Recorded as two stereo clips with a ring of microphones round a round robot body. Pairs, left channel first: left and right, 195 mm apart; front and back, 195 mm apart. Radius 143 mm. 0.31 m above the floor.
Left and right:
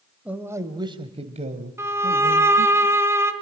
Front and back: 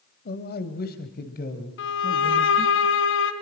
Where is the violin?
15° right, 3 m.